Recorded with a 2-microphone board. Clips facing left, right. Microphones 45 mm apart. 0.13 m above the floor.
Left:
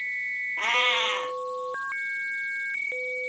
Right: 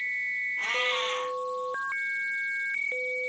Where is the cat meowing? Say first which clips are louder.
Left 7 dB; 60° left (ahead or behind), 1.3 m.